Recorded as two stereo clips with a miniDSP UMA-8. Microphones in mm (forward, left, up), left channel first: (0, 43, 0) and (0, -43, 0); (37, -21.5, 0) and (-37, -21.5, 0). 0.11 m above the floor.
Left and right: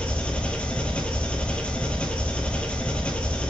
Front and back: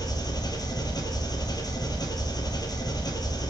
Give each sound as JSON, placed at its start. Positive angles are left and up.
{"t": 0.0, "sound": "an engine running", "azimuth_deg": 15, "distance_m": 0.8}